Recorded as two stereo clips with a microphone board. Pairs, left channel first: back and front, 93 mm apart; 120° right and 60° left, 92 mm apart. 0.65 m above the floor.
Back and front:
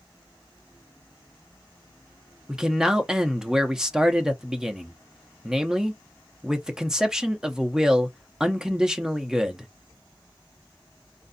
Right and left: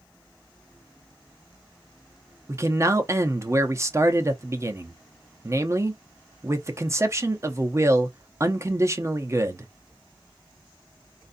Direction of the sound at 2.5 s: 75° left.